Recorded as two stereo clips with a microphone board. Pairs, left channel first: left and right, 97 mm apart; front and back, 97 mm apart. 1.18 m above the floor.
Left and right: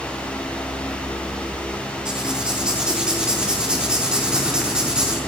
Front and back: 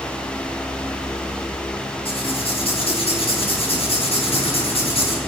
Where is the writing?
10° right, 4 m.